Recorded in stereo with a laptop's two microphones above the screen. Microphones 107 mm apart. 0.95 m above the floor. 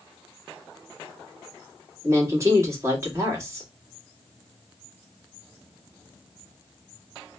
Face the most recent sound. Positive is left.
turn(degrees=-25)  # may be behind; listen again after turning